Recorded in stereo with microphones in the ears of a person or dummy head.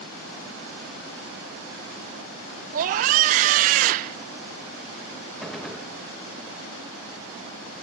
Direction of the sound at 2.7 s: 45° right (ahead or behind).